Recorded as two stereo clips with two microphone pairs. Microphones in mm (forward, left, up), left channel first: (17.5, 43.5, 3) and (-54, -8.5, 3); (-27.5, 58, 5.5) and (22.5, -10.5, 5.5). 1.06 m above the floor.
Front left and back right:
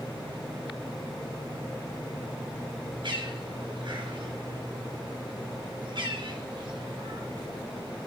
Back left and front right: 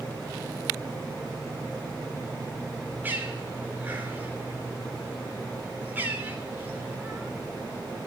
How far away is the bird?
About 3.5 m.